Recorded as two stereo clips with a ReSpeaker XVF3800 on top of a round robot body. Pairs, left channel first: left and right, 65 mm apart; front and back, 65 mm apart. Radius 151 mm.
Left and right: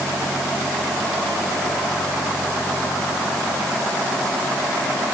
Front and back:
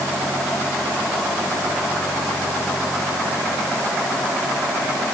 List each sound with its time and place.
Only background noise.